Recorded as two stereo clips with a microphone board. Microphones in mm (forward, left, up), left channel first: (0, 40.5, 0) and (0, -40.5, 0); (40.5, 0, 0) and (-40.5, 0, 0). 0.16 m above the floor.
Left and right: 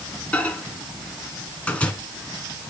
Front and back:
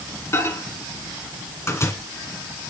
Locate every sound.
0.3 s a microwave: 25° left, 1.5 m